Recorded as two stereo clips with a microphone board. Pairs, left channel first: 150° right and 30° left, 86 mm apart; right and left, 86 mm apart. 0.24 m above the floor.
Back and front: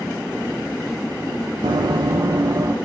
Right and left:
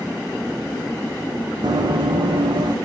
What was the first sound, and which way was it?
Running footsteps, 55° left.